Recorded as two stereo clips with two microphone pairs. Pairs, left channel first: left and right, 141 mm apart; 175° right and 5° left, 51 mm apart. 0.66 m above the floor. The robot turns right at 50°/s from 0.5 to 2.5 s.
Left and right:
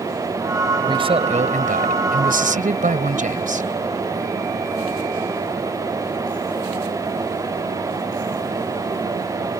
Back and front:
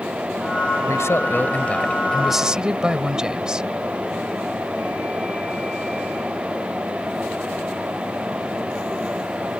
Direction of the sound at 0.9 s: 150° right.